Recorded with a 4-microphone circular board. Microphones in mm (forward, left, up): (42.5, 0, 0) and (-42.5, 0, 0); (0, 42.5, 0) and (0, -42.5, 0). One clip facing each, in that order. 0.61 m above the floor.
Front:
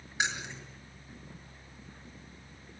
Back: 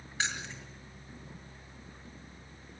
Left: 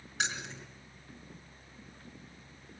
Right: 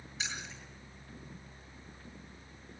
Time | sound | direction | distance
0.2 | keys jangling | 70° left | 5 m